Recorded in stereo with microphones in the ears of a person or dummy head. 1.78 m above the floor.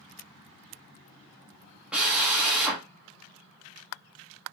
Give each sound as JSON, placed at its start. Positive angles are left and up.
{"t": 1.9, "sound": "a drill", "side_deg": -5, "distance_m": 1.2}